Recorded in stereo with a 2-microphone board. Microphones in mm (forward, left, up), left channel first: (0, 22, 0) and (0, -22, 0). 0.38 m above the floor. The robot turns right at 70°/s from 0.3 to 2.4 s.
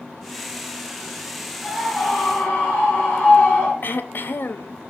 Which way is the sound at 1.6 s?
15° right.